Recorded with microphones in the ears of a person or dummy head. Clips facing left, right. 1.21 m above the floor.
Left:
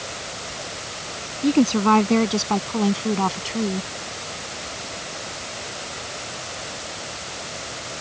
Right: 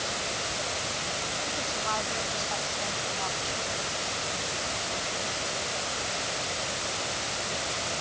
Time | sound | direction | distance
1.4 | a woman speaking | 80° left | ?